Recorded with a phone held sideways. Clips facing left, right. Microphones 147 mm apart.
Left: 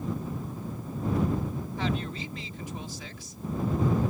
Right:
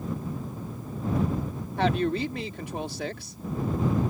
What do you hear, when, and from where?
1.8 s a woman speaking: 70° right (ahead or behind)